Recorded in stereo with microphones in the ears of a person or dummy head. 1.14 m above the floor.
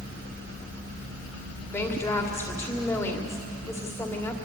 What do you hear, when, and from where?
1.7 s a woman speaking: 15° left (ahead or behind), 2.5 m